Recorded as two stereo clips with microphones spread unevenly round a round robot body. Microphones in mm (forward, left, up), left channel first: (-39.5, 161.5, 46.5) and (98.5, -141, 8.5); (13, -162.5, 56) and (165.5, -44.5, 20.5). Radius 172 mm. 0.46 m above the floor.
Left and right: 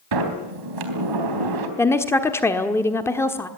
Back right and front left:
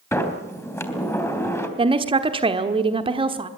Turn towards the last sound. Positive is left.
turn(degrees=25)